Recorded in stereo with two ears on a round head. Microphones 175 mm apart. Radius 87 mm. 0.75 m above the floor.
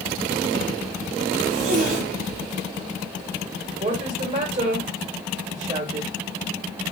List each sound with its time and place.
1.4 s a zipper: 45° right (ahead or behind), 1.7 m
3.8 s a woman speaking: 35° right (ahead or behind), 1.6 m